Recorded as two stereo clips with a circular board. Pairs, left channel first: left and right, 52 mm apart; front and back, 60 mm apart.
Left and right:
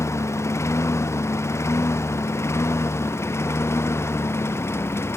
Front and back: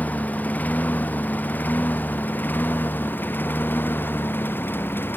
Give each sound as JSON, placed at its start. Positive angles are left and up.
{"t": 0.0, "sound": "a lawn mower", "azimuth_deg": 65}